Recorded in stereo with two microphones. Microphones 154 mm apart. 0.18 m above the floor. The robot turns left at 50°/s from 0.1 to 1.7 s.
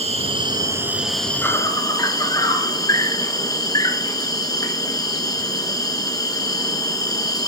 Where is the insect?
130° right, 0.9 m; by 7.5 s 150° left, 0.9 m.